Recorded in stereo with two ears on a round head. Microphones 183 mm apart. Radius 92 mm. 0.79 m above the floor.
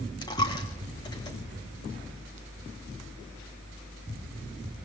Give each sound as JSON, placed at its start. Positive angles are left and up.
{"t": 0.2, "sound": "a dropped coin", "side_deg": 20, "distance_m": 2.5}